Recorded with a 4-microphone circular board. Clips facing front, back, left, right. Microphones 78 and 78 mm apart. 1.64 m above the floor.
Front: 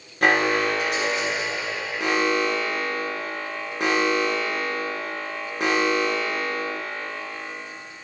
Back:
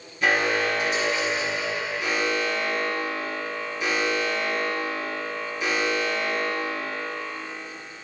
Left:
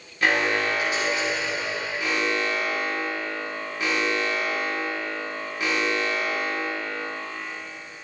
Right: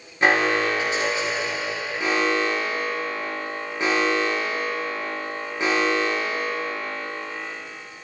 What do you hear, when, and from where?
0.2 s an alarm: 25° right, 3 m